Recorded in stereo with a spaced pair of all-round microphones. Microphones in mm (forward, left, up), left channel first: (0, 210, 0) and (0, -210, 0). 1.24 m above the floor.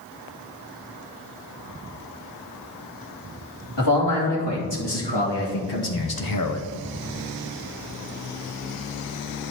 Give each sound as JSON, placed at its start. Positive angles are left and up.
{"t": 3.8, "sound": "a man speaking", "side_deg": 75, "distance_m": 3.0}